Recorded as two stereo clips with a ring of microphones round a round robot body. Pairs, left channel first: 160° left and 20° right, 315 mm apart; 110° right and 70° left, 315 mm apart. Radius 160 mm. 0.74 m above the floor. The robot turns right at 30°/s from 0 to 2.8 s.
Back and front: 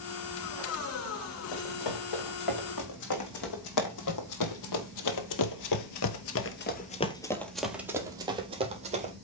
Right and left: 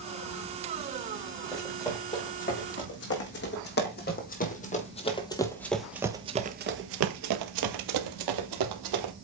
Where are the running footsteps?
155° left, 3.5 m; by 9.1 s 45° left, 1.9 m.